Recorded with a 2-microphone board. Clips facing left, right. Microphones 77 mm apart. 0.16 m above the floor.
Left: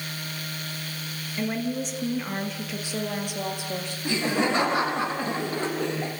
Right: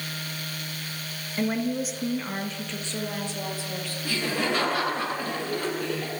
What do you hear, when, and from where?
1.4 s a woman speaking: 15° right (ahead or behind), 3 m; by 4.0 s 20° left (ahead or behind), 5 m
4.0 s laughter: 20° left (ahead or behind), 5.5 m